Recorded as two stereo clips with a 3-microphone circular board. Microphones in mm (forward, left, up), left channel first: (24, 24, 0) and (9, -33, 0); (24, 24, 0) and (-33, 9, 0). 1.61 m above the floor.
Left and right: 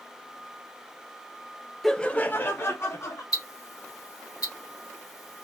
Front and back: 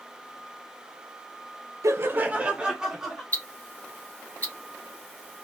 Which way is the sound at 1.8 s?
165° left.